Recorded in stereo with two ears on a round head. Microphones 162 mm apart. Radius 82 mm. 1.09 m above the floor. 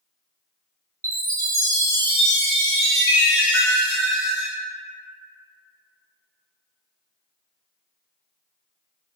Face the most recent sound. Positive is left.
turn(degrees=-15)  # may be behind; listen again after turning